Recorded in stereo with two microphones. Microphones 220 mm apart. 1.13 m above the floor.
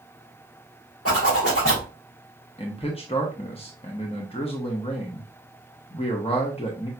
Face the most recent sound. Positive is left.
turn(degrees=25)  # may be behind; listen again after turning